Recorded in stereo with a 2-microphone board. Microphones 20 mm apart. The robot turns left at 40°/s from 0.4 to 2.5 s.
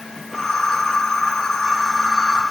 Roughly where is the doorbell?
I don't hear a doorbell.